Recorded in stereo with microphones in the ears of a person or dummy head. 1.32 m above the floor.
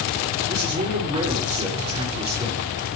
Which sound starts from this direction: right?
A man speaking, at 0.5 s.